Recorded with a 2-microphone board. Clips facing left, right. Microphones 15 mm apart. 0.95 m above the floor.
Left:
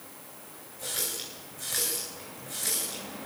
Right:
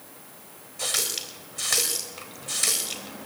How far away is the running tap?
About 3.5 m.